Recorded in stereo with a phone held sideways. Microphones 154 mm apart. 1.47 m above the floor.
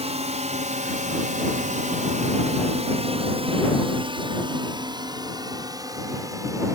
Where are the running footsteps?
No running footsteps in this recording.